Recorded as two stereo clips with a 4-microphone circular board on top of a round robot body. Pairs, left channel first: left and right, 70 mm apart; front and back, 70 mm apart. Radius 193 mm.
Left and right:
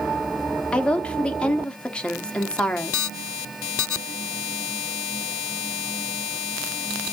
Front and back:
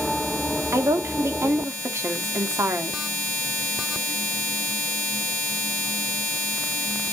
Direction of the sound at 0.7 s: 160° left.